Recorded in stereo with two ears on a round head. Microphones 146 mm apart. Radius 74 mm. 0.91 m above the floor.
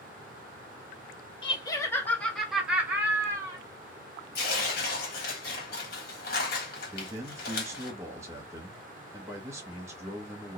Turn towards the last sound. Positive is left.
turn(degrees=-15)  # may be behind; listen again after turning